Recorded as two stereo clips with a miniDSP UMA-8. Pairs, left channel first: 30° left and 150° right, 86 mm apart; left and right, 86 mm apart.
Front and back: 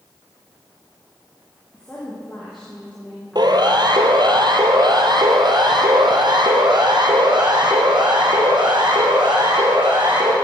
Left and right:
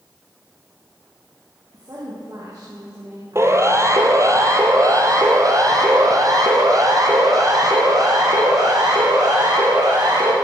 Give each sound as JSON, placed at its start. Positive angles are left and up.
{"t": 1.7, "sound": "a woman speaking", "azimuth_deg": -50, "distance_m": 8.5}
{"t": 3.4, "sound": "a siren", "azimuth_deg": -140, "distance_m": 2.5}